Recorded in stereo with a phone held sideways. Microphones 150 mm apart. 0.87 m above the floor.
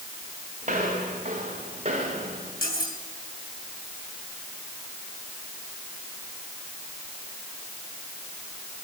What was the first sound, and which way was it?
Footsteps, 50° right (ahead or behind).